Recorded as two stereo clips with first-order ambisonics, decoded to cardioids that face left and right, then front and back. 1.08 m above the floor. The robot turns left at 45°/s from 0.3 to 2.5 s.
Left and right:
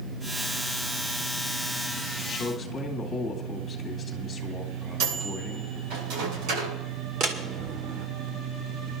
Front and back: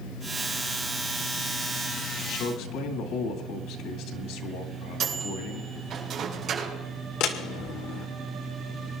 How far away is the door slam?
About 1.9 m.